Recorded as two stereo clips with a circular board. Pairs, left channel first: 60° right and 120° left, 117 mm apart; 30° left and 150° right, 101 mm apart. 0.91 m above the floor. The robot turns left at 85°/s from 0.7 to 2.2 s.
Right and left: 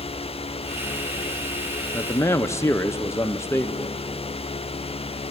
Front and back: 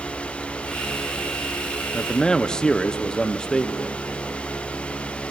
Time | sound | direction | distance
1.9 | a man speaking | 20° right | 0.6 m